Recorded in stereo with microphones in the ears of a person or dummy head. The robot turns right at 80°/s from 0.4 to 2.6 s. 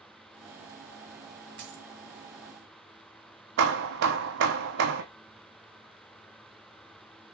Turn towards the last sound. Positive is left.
turn(degrees=-65)  # may be behind; listen again after turning